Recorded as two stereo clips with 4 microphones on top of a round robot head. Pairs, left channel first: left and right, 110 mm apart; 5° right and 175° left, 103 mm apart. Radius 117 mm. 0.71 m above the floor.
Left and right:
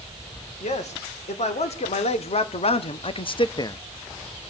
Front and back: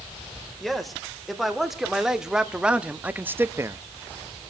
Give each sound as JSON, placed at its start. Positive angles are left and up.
{"t": 0.6, "sound": "a man speaking", "azimuth_deg": 80, "distance_m": 3.5}